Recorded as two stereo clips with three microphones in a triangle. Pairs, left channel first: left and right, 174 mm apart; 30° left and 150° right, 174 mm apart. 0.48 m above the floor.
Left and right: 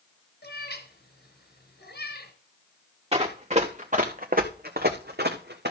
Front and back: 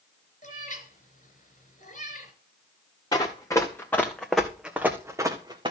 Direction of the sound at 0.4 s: 75° left.